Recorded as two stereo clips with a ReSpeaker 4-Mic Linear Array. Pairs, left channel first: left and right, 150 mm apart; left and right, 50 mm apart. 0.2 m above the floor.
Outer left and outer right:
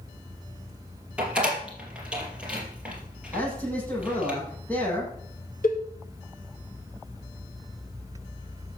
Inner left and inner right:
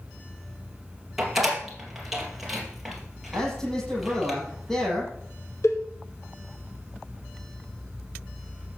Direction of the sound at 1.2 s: 10° right (ahead or behind).